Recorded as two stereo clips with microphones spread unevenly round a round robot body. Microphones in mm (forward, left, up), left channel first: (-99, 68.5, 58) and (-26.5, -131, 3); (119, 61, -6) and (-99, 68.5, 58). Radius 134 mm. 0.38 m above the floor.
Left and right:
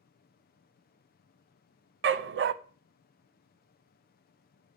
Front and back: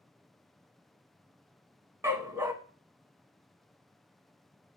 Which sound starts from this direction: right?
A dog barking, at 2.0 s.